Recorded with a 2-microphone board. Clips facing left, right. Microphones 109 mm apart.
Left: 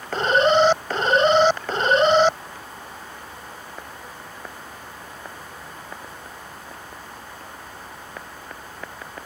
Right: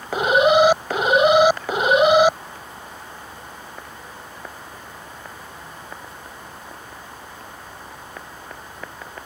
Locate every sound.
0.1 s an alarm: 10° right (ahead or behind)